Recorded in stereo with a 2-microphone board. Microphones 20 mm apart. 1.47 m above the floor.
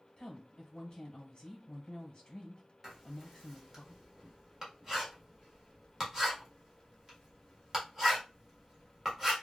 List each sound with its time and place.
0.2 s a woman speaking: 40° left (ahead or behind), 1.0 m
2.8 s writing: 20° right (ahead or behind), 1.3 m